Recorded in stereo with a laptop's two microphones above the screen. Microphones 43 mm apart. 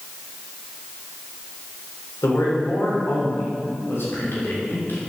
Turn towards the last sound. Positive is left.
turn(degrees=60)  # may be behind; listen again after turning